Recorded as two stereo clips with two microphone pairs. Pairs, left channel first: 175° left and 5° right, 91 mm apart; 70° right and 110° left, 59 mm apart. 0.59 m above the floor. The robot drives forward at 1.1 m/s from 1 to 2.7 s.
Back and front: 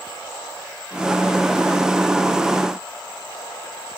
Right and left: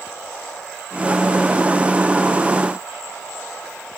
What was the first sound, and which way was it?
Only background noise.